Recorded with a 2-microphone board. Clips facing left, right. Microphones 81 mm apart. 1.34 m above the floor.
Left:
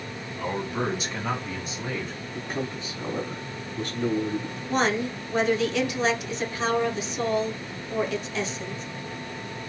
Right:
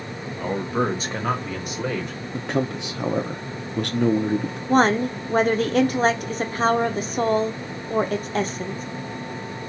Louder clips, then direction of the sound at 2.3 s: Right 7 dB; 75° right (ahead or behind).